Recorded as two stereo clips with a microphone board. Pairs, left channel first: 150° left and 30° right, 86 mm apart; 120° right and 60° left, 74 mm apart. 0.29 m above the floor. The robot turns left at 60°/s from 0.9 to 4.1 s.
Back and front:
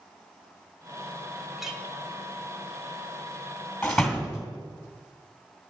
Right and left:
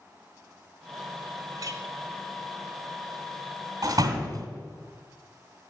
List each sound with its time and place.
1.6 s a clink: 55° left, 1.3 m; by 1.8 s 40° left, 1.3 m
3.8 s a door slam: 75° left, 1.9 m; by 4.5 s 55° left, 1.9 m